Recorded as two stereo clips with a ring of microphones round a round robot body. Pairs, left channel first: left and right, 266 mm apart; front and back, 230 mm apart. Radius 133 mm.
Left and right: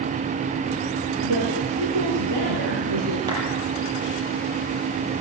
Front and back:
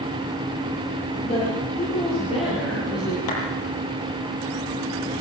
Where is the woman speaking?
70° right, 7.5 m; by 3.2 s 75° right, 7 m.